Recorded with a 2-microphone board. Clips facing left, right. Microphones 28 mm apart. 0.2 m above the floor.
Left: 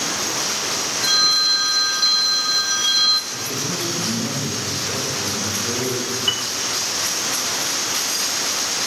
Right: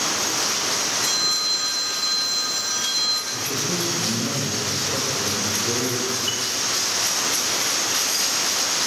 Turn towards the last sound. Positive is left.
turn(degrees=30)  # may be behind; listen again after turning